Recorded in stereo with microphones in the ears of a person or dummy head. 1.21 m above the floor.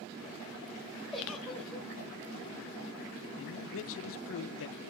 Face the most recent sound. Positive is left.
turn(degrees=65)  # may be behind; listen again after turning